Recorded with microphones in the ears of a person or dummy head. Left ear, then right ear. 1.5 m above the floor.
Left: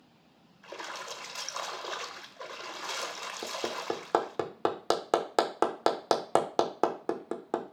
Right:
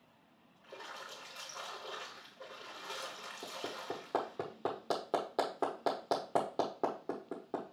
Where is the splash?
65° left (ahead or behind), 1.1 m.